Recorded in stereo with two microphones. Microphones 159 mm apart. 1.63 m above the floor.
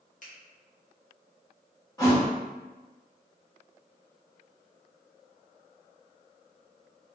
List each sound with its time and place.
0.2 s a finger snap: 50° left (ahead or behind), 1.5 m
2.0 s a thud: 20° left (ahead or behind), 1.6 m